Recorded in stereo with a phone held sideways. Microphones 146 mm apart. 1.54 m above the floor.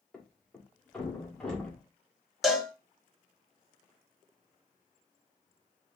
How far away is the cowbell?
About 1.0 m.